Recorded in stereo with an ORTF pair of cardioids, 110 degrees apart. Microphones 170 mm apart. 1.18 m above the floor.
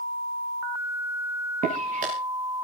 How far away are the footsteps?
About 9 m.